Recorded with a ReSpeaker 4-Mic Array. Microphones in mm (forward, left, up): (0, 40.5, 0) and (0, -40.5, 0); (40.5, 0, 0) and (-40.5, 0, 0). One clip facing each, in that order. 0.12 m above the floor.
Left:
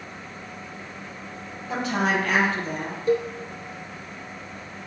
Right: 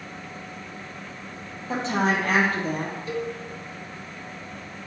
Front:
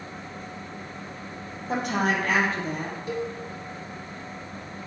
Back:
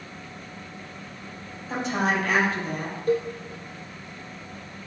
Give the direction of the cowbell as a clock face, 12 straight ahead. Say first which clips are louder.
Left 9 dB, back 8 dB; 7 o'clock.